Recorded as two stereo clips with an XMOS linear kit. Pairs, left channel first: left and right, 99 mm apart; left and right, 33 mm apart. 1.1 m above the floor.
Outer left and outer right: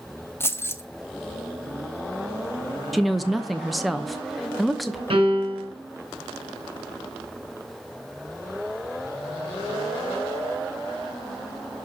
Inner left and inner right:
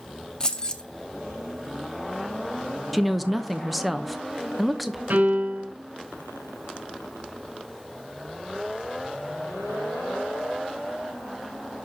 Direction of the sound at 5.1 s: 65° right (ahead or behind).